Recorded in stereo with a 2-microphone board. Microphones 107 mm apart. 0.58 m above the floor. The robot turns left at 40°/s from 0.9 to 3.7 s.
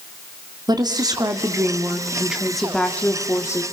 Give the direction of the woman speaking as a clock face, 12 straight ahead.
4 o'clock.